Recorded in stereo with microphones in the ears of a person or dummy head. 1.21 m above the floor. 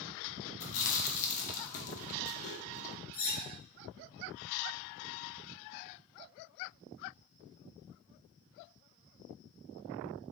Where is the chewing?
40° left (ahead or behind), 0.8 m.